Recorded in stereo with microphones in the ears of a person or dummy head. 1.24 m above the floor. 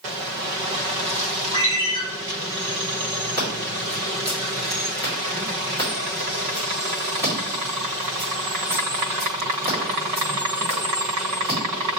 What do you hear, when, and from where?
1.5 s a ringtone: 20° left (ahead or behind), 1.2 m
3.4 s scissors: 15° left (ahead or behind), 1.8 m